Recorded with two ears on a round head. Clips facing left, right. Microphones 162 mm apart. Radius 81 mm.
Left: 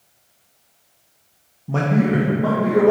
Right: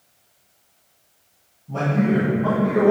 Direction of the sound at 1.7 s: 75° left (ahead or behind).